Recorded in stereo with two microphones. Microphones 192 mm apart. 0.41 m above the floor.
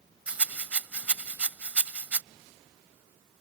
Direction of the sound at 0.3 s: 5° right (ahead or behind).